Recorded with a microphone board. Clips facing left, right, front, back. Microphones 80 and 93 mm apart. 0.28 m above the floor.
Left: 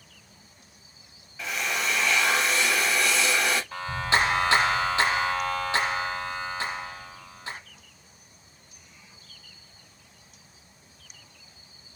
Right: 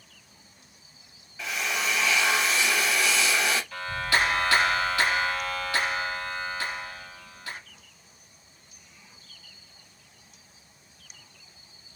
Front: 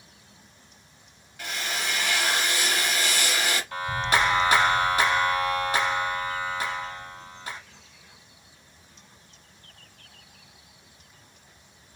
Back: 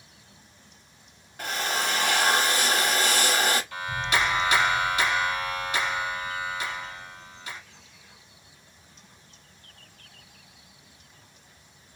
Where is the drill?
Straight behind, 0.8 m.